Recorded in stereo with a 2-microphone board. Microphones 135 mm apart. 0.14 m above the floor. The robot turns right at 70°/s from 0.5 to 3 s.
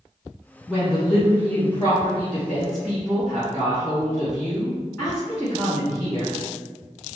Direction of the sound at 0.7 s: 20° right.